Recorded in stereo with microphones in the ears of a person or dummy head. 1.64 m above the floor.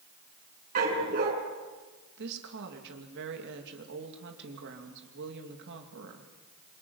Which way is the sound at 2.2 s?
65° right (ahead or behind).